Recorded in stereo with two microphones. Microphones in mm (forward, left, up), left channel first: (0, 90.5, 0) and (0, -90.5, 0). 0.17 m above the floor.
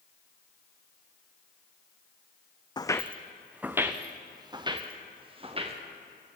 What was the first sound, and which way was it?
Footsteps, 25° left (ahead or behind).